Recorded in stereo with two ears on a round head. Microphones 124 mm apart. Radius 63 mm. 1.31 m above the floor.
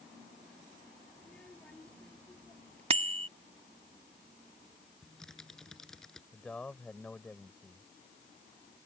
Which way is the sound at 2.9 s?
45° right (ahead or behind).